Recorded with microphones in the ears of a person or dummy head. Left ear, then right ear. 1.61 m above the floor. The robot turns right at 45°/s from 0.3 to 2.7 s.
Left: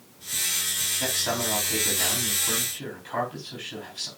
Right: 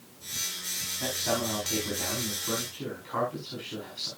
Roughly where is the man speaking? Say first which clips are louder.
Even; ahead left.